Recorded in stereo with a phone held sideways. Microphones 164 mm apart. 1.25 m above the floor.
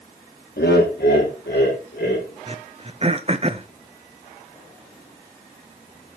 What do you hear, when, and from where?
0.6 s laughter: 80° left, 2 m; by 2.3 s 85° left, 4 m
2.5 s throat clearing: 35° right (ahead or behind), 0.6 m